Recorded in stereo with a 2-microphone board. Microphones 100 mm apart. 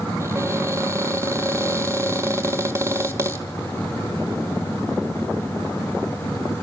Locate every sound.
0.2 s a cupboard door: 30° right (ahead or behind), 1.3 m